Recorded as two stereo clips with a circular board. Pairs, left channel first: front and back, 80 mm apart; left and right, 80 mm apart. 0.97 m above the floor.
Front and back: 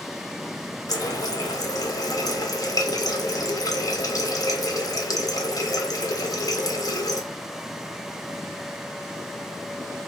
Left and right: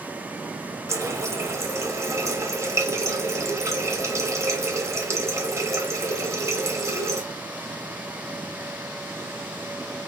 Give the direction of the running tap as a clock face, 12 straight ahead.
1 o'clock.